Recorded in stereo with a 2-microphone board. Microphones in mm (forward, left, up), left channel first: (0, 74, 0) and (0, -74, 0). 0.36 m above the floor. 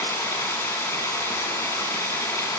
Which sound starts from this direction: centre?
Running water, at 0.0 s.